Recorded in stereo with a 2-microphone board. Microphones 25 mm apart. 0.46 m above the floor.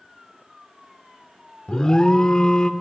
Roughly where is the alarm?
Left.